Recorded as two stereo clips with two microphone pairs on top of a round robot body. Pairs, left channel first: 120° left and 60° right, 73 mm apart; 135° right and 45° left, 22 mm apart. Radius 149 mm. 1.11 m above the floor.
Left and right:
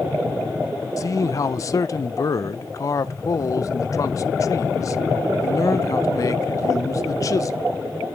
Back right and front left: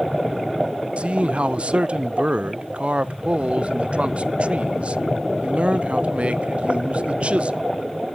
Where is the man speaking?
75° left, 0.7 m.